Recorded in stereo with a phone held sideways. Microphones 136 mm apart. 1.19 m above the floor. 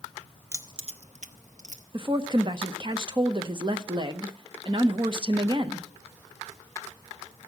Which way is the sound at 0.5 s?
20° right (ahead or behind).